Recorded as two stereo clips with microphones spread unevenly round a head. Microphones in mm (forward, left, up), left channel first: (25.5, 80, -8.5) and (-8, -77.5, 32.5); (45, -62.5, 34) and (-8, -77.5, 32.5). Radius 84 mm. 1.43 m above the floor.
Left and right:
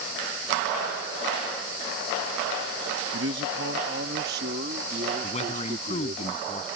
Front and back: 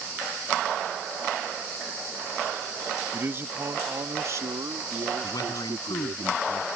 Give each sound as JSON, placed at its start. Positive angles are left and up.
{"t": 3.1, "sound": "a man speaking", "azimuth_deg": -110}
{"t": 5.2, "sound": "a man speaking", "azimuth_deg": 25}